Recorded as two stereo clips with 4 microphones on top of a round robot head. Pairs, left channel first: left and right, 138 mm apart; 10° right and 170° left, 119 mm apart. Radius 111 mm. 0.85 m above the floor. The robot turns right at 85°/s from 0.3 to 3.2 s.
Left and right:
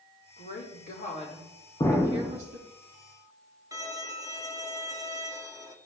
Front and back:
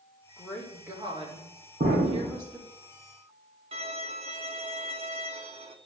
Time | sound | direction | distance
0.4 | a woman speaking | 60° left | 3.5 m
1.8 | an explosion | 150° left | 1.9 m
3.7 | a violin | 150° right | 1.4 m